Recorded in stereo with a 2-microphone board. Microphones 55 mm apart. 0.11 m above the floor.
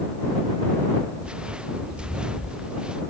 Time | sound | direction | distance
1.2 | footsteps | 20° right (ahead or behind) | ?